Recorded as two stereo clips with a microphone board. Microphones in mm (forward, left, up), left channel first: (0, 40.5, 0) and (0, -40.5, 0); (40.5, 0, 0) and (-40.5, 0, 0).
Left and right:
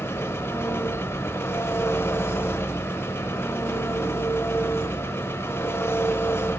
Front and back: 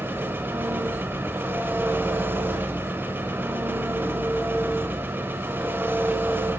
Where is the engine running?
130° left, 1.0 m.